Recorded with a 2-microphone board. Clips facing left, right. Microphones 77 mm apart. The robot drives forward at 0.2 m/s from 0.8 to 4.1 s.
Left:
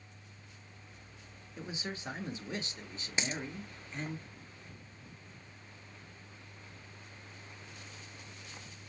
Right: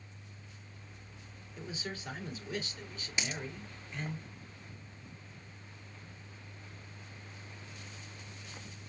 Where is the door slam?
No door slam in this recording.